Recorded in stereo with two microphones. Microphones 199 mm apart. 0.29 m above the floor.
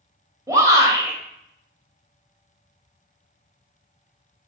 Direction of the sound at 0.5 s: 15° right (ahead or behind).